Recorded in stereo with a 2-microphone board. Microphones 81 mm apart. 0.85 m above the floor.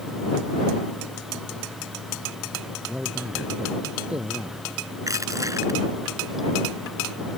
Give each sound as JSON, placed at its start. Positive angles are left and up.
{"t": 2.9, "sound": "a man speaking", "side_deg": -10}
{"t": 5.1, "sound": "crushing", "side_deg": -40}